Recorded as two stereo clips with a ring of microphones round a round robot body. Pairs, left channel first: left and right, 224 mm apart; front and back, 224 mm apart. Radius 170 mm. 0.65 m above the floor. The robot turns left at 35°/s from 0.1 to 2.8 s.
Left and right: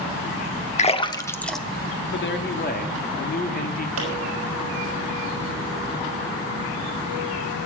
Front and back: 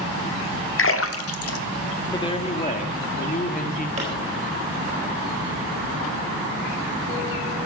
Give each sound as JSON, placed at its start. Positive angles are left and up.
{"t": 0.8, "sound": "a splash", "azimuth_deg": 30, "distance_m": 1.0}
{"t": 2.1, "sound": "a man speaking", "azimuth_deg": 70, "distance_m": 1.7}
{"t": 4.0, "sound": "a pop", "azimuth_deg": -115, "distance_m": 4.0}